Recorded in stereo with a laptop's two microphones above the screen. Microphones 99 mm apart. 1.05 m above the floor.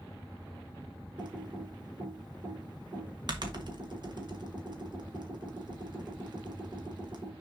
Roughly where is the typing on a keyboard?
Right.